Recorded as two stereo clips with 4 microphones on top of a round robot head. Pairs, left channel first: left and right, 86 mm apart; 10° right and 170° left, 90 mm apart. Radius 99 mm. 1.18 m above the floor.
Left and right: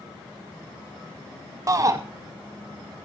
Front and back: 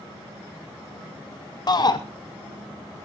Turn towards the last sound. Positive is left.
turn(degrees=-45)